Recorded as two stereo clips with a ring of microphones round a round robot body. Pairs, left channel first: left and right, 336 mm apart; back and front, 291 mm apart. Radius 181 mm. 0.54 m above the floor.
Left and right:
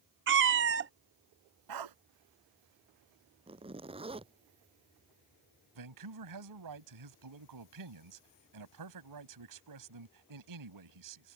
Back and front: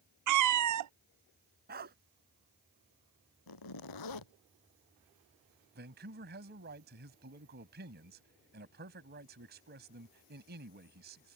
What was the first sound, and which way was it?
A cat meowing, 35° right.